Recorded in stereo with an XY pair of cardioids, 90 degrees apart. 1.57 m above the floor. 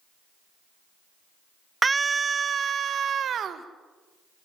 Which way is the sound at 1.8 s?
25° right.